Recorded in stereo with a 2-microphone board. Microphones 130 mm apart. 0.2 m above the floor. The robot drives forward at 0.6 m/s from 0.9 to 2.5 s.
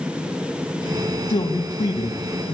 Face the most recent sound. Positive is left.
turn(degrees=30)  # may be behind; listen again after turning